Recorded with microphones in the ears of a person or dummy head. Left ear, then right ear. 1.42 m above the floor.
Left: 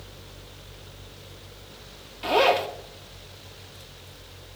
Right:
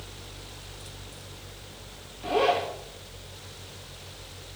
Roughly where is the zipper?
Left.